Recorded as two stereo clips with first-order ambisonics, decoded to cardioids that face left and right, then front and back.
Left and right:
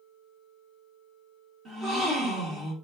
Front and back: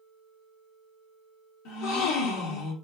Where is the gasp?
15° right, 1.2 m.